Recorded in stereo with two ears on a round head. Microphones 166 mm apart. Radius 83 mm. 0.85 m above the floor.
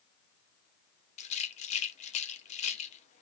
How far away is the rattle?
About 0.5 m.